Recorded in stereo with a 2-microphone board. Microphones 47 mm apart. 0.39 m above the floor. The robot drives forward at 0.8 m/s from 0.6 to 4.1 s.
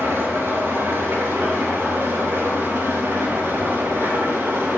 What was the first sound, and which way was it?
An engine running, 65° right (ahead or behind).